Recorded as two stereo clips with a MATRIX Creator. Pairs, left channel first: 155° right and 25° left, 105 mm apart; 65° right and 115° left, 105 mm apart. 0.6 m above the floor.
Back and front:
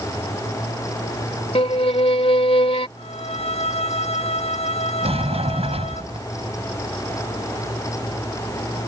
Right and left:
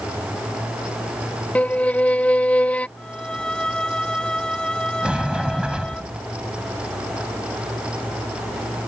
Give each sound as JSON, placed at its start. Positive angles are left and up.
{"t": 1.6, "sound": "a violin", "azimuth_deg": -145}
{"t": 3.0, "sound": "a violin", "azimuth_deg": -150}
{"t": 5.0, "sound": "a sliding door", "azimuth_deg": 35}